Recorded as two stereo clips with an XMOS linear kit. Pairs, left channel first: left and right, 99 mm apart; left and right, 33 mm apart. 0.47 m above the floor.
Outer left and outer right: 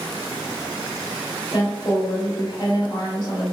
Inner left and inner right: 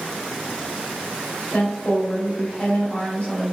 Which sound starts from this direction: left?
A woman speaking, at 1.5 s.